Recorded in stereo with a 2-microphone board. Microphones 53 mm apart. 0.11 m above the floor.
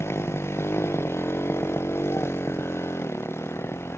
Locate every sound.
0.0 s a motorcycle: 50° left (ahead or behind)